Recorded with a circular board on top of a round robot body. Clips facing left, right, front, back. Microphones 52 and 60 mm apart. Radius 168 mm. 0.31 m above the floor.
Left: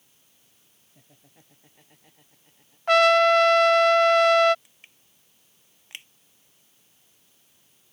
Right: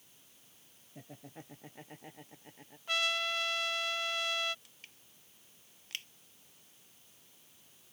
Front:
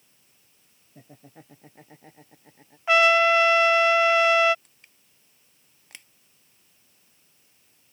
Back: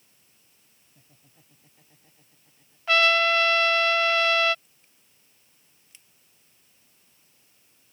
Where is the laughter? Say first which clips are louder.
Right 9 dB, front 14 dB; 30° right; by 2.8 s 35° right.